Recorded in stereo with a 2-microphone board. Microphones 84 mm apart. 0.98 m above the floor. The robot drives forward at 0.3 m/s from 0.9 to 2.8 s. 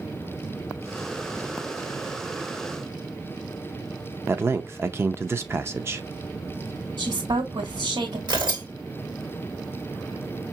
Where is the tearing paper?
60° right (ahead or behind), 1.9 m.